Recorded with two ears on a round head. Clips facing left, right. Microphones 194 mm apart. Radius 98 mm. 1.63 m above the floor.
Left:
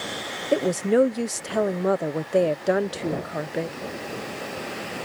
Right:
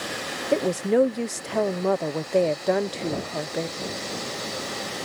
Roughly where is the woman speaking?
Centre.